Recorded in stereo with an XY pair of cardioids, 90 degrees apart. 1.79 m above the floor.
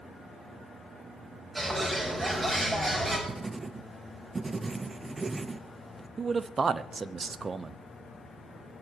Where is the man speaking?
40° right, 1.0 m.